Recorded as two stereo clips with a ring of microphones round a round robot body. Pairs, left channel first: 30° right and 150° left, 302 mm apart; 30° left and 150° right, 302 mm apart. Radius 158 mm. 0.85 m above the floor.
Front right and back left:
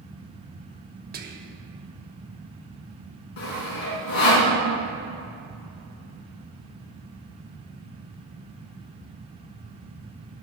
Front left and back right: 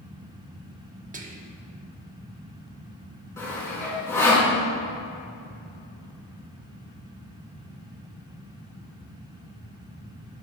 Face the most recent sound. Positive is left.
turn(degrees=-50)